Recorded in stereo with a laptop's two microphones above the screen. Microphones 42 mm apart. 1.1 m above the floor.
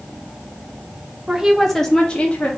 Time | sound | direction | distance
1.3 | a woman speaking | 20° right (ahead or behind) | 1.4 m